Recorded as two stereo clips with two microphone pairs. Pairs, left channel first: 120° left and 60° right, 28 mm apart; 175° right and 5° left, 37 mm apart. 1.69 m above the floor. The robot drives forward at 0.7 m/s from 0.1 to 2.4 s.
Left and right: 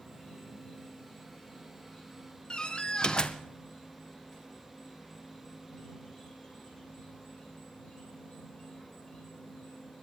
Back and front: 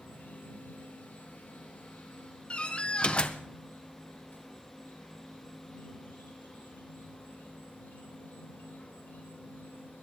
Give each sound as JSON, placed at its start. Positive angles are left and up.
{"t": 0.0, "sound": "an insect", "azimuth_deg": -150, "distance_m": 6.0}
{"t": 2.5, "sound": "a door slam", "azimuth_deg": 150, "distance_m": 0.7}